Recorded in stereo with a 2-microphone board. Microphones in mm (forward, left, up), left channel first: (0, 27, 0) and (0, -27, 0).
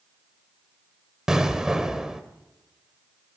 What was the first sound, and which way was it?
An explosion, 10° right (ahead or behind).